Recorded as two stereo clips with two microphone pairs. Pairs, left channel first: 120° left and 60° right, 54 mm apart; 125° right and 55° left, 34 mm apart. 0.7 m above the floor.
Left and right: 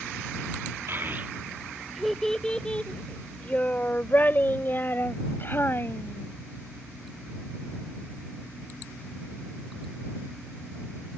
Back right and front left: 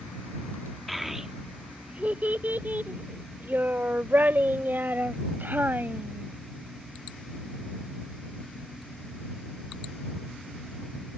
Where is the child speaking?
25° right; by 6.3 s 75° left.